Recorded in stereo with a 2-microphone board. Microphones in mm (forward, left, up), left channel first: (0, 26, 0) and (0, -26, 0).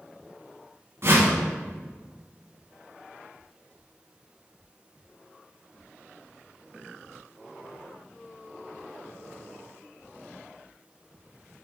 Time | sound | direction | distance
1.0 | a whoosh | 55° right (ahead or behind) | 1.3 m